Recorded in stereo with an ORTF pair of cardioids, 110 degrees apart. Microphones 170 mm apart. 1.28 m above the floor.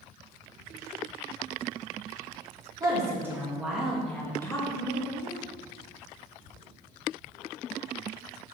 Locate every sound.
2.8 s a woman speaking: 20° right, 1.6 m; by 5.4 s 40° left, 1.3 m